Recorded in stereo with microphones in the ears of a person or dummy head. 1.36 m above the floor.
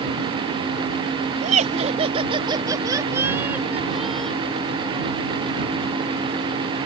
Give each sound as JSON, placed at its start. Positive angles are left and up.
{"t": 1.4, "sound": "laughter", "side_deg": -40}